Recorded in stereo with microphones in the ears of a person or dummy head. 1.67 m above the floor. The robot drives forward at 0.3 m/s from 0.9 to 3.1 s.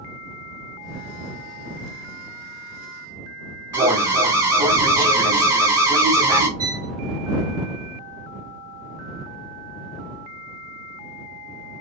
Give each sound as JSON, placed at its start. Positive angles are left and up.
{"t": 3.7, "sound": "an alarm", "side_deg": -15, "distance_m": 0.5}
{"t": 6.6, "sound": "a violin", "side_deg": -55, "distance_m": 1.1}